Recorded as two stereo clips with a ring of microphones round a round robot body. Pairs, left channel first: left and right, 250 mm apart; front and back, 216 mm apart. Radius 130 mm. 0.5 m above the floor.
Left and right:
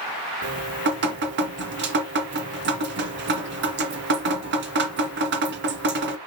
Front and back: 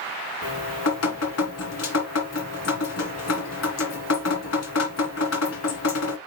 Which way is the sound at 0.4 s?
40° right.